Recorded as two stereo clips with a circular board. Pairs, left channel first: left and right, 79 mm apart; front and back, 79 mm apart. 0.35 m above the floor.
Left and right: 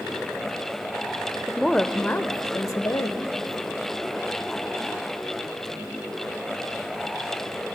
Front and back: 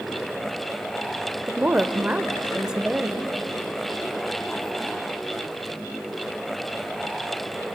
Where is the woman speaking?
170° right, 0.8 m; by 3.3 s 95° left, 1.4 m.